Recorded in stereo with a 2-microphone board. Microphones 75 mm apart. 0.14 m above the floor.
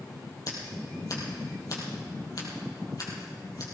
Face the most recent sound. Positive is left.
turn(degrees=55)  # may be behind; listen again after turning